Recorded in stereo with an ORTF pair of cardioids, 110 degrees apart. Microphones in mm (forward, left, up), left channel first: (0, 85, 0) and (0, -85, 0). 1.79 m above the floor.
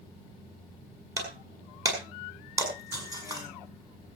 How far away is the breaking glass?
About 5.5 m.